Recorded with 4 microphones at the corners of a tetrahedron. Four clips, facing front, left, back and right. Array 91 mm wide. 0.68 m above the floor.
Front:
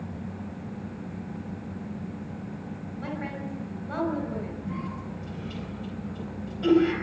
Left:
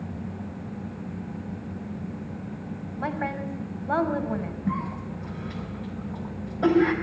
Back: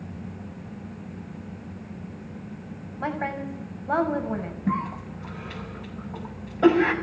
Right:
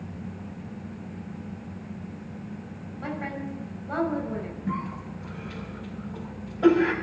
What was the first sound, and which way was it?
A woman speaking, 140° left.